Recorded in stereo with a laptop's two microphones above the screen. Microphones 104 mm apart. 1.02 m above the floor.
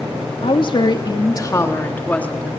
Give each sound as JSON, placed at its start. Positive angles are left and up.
{"t": 0.4, "sound": "a woman speaking", "side_deg": 55, "distance_m": 2.0}